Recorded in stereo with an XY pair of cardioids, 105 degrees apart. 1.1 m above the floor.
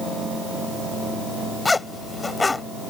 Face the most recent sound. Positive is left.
turn(degrees=15)